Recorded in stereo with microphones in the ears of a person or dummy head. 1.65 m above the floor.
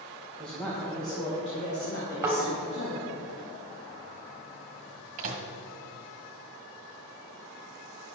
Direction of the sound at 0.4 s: Centre (ahead or behind).